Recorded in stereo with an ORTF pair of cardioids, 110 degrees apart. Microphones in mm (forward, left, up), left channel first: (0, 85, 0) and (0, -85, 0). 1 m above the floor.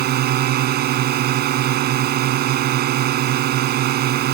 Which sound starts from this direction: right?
A drone, at 0.0 s.